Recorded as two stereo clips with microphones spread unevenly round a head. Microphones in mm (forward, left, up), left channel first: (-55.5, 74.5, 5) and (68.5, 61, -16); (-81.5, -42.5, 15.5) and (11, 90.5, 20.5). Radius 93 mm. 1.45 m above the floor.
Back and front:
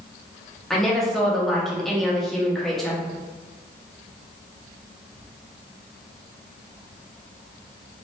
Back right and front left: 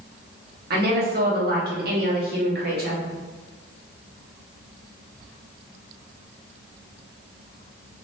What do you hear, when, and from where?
0.7 s a woman speaking: 85° left, 1.4 m